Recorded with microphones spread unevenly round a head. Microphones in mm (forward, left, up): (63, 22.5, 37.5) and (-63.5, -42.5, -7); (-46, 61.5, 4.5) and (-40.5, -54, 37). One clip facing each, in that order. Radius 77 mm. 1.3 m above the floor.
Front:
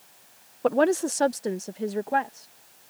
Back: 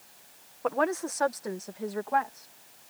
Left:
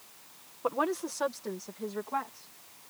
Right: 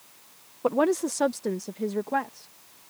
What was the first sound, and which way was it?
A woman speaking, 25° right.